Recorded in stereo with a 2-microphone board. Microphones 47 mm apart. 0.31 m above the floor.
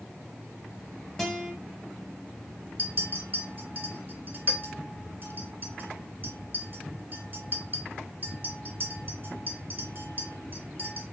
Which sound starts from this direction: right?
A clink, at 2.8 s.